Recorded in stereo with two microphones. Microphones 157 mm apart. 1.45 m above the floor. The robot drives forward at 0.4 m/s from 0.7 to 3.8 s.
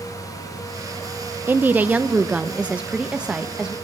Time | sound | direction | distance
1.5 | a woman speaking | 15° right (ahead or behind) | 0.7 m